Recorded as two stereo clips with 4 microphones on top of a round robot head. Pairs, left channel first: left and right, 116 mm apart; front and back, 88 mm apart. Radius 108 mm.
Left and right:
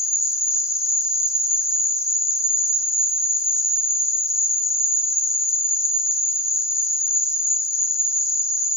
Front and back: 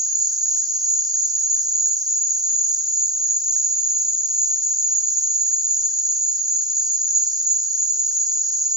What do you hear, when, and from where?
0.0 s an insect: 150° left, 2.5 m